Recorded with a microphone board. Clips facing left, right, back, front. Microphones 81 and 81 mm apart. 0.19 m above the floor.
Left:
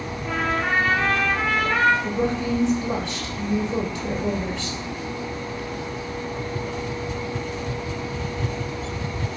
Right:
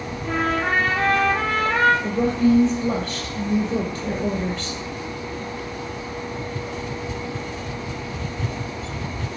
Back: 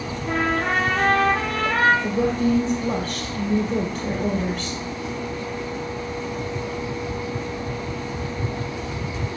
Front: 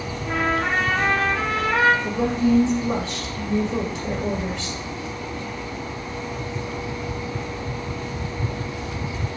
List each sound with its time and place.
0.2 s a trumpet: 140° right, 2.5 m
2.0 s a woman speaking: 135° right, 2.5 m